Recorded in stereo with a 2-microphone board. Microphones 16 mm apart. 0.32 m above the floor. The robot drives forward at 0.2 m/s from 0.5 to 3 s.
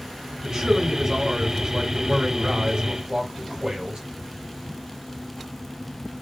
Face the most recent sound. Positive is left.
turn(degrees=-45)  # may be behind; listen again after turning